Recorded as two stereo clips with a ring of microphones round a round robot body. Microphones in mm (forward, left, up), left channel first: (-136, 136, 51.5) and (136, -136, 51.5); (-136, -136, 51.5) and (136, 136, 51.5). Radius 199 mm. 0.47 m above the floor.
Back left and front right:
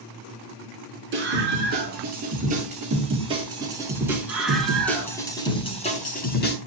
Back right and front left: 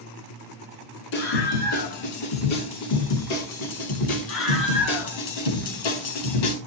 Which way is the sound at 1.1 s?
110° right.